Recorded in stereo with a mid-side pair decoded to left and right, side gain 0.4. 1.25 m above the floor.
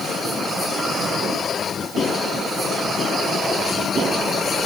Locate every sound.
Only background noise.